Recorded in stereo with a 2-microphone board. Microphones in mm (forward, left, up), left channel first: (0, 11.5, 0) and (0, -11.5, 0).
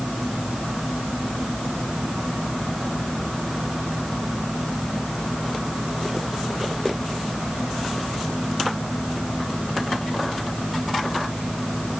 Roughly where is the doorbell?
No doorbell in this recording.